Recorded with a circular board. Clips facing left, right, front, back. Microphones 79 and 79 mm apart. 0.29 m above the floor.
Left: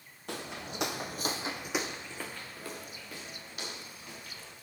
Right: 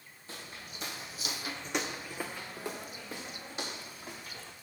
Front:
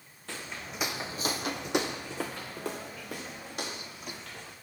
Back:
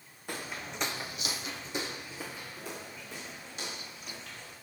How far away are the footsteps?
About 1.5 m.